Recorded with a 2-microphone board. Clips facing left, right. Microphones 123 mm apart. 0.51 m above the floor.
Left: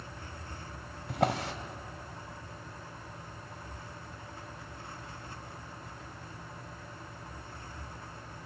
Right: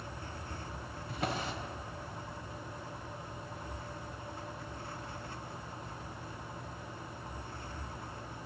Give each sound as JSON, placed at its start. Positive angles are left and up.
{"t": 1.1, "sound": "a drawer", "side_deg": 75, "distance_m": 1.0}